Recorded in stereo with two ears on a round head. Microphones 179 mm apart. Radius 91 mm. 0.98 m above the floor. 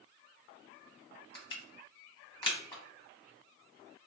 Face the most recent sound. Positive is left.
turn(degrees=25)  # may be behind; listen again after turning